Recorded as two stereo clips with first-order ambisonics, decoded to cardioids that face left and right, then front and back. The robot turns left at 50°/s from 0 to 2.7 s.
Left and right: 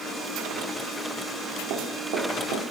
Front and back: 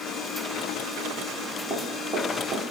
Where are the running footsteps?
75° right, 2 m; by 2.6 s 120° right, 2 m.